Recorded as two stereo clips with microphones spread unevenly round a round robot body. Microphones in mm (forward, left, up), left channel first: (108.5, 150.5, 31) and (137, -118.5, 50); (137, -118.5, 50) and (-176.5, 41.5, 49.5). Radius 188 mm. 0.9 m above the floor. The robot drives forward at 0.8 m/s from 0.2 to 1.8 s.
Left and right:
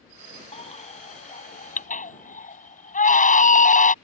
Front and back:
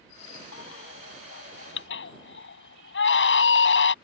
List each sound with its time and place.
0.5 s a baby crying: 30° left; by 4.0 s 35° left